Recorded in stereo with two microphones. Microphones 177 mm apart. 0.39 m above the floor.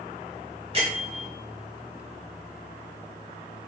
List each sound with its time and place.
0.7 s a bell: 35° right (ahead or behind), 1.4 m